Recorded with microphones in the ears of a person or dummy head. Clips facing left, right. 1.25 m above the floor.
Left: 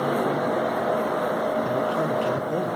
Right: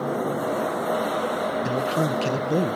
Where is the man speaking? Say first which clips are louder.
Even; 30° right (ahead or behind), 0.7 m.